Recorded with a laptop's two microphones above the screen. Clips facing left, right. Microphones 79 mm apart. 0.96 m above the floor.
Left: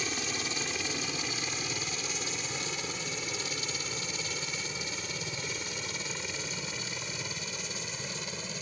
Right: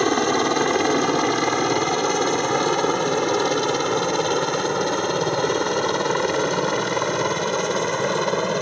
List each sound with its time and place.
0.0 s a helicopter: 65° right (ahead or behind)